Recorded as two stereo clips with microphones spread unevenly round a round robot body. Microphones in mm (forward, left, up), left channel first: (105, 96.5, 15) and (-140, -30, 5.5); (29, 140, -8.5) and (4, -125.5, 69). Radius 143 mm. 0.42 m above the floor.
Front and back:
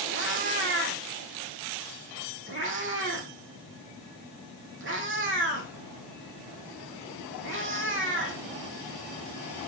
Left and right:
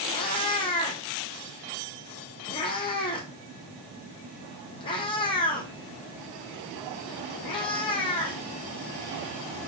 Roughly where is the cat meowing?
Behind.